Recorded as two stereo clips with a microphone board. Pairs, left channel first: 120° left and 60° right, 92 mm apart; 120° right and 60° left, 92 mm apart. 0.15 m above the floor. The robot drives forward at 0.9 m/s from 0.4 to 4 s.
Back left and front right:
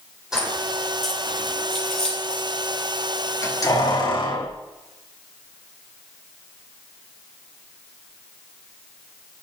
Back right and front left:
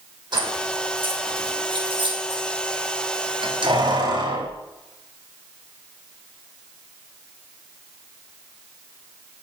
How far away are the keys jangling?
About 3.5 m.